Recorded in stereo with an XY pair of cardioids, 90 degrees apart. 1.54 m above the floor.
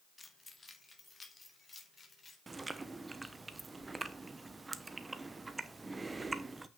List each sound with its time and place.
0.2 s keys jangling: 20° left, 2 m; by 2.4 s 30° left, 4.5 m
2.5 s chewing: 25° right, 1.0 m